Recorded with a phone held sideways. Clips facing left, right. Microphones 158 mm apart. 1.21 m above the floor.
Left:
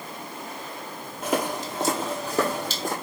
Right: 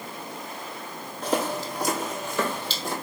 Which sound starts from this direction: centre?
Footsteps, at 1.2 s.